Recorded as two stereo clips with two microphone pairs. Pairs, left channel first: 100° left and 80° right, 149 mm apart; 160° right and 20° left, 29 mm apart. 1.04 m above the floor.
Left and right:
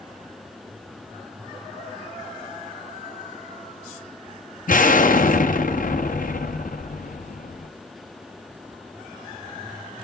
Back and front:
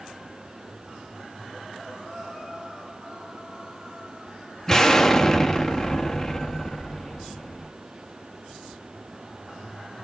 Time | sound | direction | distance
4.7 | an explosion | 130° left | 1.0 m